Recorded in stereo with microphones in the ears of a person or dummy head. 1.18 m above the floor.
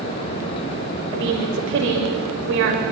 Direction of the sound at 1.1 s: 65° right (ahead or behind).